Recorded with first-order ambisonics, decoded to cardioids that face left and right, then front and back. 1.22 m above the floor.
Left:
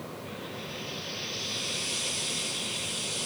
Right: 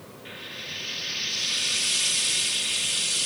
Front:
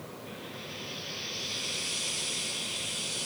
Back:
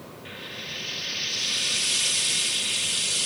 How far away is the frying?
About 1.5 m.